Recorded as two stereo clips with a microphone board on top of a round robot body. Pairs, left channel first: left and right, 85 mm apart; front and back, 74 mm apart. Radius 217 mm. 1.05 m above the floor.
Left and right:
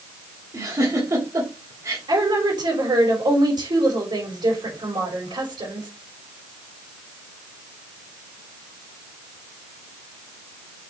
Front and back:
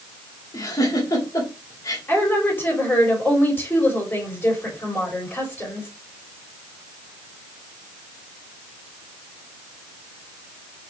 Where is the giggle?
40° right, 2.5 m.